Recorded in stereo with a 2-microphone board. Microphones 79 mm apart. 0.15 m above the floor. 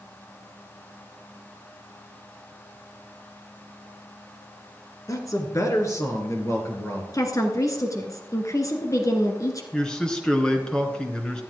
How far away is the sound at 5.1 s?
About 2 m.